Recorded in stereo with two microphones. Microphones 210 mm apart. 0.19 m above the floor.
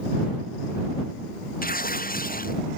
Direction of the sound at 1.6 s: 40° left (ahead or behind).